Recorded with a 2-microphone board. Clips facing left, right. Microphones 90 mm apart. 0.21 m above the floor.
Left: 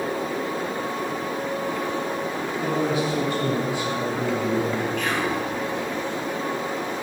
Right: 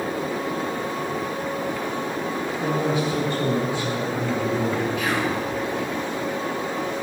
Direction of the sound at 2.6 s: 10° left (ahead or behind).